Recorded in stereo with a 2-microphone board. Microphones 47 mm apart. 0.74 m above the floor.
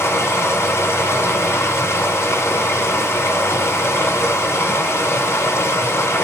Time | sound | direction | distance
0.0 | running water | 80° left | 1.8 m